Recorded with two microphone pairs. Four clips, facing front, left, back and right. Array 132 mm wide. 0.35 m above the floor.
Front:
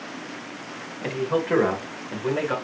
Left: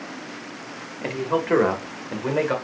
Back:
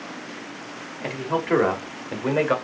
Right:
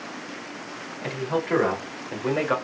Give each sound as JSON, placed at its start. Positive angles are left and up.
{"t": 1.0, "sound": "a man speaking", "azimuth_deg": 100, "distance_m": 1.6}